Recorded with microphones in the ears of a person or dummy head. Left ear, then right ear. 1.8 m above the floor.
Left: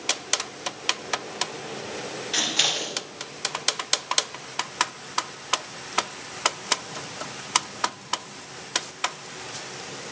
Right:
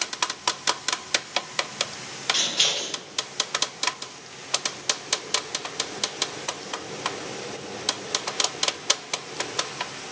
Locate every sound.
2.3 s scissors: 40° left (ahead or behind), 2 m